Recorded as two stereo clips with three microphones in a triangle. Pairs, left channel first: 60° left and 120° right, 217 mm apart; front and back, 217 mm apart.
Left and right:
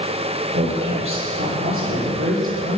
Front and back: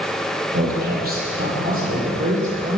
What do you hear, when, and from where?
0.5 s a woman speaking: 140° right, 6.5 m; by 2.8 s 120° right, 7 m